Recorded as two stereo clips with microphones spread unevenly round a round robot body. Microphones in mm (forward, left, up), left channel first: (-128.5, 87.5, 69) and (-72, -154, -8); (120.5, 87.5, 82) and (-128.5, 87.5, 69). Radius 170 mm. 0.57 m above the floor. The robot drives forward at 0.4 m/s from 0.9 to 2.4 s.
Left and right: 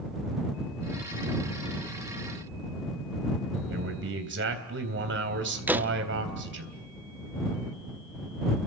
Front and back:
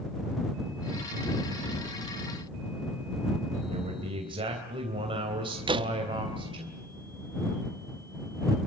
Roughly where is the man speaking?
Right.